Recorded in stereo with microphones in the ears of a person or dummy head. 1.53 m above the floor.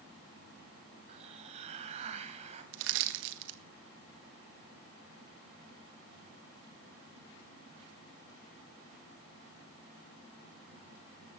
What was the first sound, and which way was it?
A hiss, 35° right (ahead or behind).